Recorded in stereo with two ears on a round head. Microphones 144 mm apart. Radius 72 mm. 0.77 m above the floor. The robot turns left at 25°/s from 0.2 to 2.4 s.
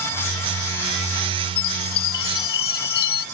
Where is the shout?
I don't hear a shout.